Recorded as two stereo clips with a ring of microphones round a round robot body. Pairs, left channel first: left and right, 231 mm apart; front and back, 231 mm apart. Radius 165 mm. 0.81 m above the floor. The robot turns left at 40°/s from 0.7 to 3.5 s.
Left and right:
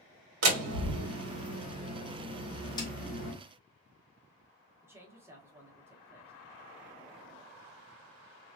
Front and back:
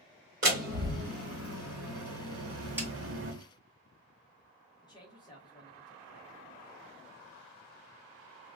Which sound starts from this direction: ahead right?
A man speaking, at 4.8 s.